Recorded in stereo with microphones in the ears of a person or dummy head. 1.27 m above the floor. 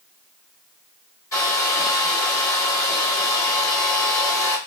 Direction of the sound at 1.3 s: 15° left (ahead or behind).